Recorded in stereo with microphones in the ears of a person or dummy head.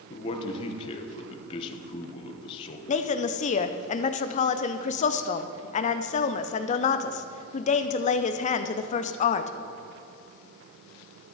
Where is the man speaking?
35° left (ahead or behind), 1.2 m.